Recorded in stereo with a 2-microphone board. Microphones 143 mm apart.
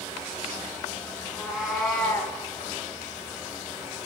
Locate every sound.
1.2 s a cat meowing: 10° right (ahead or behind), 2.5 m; by 2.4 s 20° left (ahead or behind), 1.6 m